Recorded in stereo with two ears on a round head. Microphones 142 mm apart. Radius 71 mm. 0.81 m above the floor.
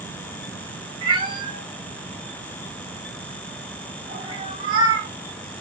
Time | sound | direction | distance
1.0 | a cat meowing | 30° right (ahead or behind) | 0.9 m